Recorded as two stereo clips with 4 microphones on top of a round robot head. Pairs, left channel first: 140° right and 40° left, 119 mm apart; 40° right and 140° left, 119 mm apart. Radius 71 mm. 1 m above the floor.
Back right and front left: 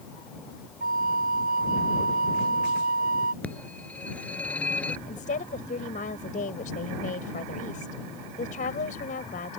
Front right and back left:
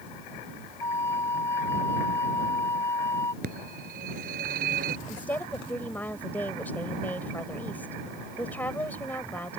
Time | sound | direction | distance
0.8 | a flute | 30° left | ?
3.4 | a phone ringing | 140° left | ?
5.1 | a woman speaking | 115° right | ?